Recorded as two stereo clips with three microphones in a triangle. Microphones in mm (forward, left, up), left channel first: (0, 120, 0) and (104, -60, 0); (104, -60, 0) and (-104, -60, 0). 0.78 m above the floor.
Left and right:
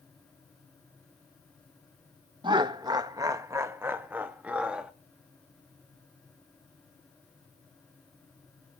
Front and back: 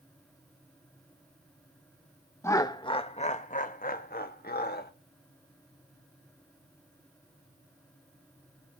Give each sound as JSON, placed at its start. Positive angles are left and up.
{"t": 2.4, "sound": "laughter", "azimuth_deg": -55, "distance_m": 0.8}